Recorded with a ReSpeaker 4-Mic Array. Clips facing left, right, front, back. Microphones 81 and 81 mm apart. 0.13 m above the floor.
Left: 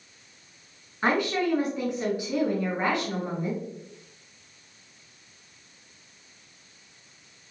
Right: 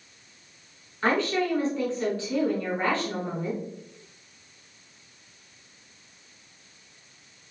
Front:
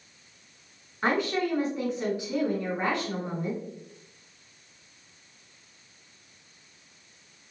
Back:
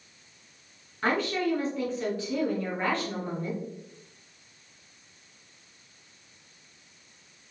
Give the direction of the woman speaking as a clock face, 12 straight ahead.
11 o'clock.